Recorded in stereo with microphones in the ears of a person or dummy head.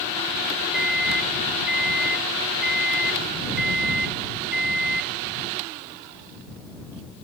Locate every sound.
0.7 s a microwave: 5° left (ahead or behind)